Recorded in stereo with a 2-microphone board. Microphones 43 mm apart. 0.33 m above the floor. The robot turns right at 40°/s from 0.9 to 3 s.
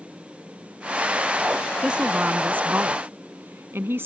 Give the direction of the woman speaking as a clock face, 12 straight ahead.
5 o'clock.